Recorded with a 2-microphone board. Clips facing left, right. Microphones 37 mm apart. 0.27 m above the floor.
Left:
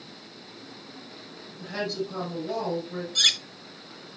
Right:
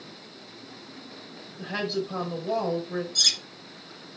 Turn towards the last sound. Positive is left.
turn(degrees=40)  # may be behind; listen again after turning